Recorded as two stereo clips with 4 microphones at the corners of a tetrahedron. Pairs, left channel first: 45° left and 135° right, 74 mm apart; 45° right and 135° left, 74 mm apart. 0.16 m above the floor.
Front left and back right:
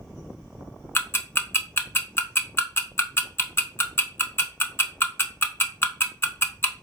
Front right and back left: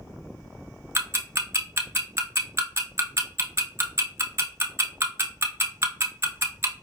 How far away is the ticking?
About 0.5 m.